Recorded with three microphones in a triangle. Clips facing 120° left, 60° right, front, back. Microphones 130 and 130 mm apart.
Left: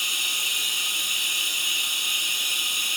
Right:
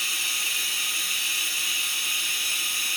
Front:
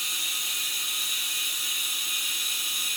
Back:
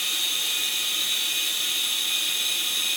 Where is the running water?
170° right, 1.0 m.